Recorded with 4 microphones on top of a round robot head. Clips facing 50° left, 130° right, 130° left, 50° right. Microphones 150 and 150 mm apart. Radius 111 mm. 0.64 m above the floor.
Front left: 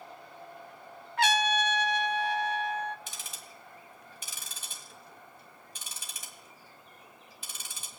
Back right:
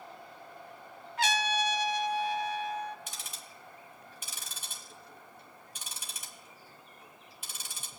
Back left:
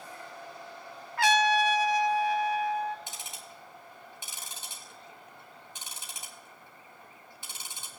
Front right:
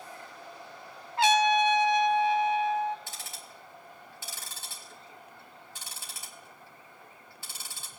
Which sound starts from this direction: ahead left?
Ticking, at 3.1 s.